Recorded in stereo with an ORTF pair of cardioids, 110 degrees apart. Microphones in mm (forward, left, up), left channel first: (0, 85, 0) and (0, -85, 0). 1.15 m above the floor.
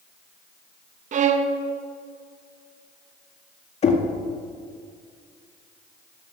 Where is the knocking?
40° left, 1.6 m.